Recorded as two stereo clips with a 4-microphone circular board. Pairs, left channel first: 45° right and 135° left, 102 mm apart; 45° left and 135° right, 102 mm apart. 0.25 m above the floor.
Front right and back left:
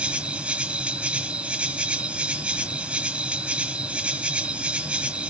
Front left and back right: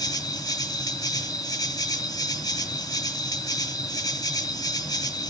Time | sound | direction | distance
0.0 | an insect | 65° left | 1.3 m